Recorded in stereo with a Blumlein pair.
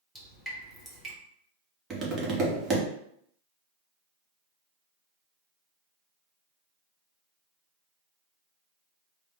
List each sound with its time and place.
0.1 s dripping: 5° right, 1.3 m
1.9 s tapping: 25° right, 1.1 m